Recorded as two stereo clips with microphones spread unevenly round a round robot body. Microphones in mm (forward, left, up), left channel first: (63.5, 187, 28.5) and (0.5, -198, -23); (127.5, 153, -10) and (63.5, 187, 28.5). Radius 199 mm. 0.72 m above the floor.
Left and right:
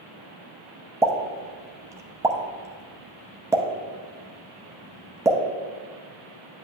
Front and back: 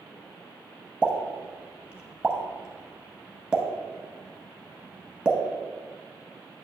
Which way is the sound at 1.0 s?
170° left.